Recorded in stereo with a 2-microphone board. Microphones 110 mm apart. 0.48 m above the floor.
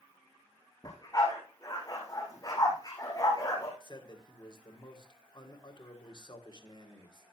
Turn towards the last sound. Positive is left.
turn(degrees=40)  # may be behind; listen again after turning